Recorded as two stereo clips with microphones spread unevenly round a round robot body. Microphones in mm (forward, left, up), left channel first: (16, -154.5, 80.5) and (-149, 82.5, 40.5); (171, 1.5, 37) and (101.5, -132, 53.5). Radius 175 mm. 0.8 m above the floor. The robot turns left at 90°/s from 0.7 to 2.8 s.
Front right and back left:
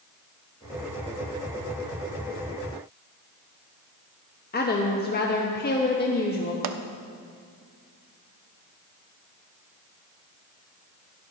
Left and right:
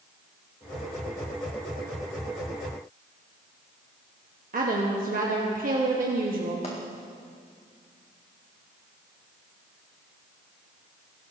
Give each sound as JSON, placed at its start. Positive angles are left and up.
{"t": 4.5, "sound": "a woman speaking", "azimuth_deg": -115, "distance_m": 1.0}
{"t": 6.6, "sound": "a pop", "azimuth_deg": 125, "distance_m": 0.7}